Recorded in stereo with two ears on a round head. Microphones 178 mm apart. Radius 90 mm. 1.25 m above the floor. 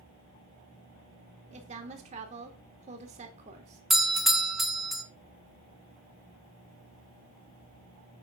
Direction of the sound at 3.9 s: Centre (ahead or behind).